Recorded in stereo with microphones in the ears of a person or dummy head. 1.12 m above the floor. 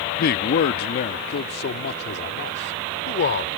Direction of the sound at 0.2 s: 50° left (ahead or behind).